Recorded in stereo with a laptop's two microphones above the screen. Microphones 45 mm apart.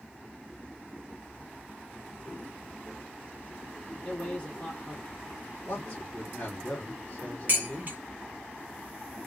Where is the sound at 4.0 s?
20° left (ahead or behind), 0.9 m.